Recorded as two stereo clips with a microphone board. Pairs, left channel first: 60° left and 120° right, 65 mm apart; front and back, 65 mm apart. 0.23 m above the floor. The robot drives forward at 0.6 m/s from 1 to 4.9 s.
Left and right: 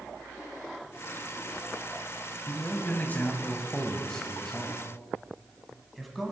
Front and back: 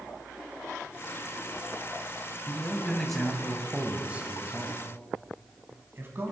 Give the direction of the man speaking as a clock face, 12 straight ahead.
10 o'clock.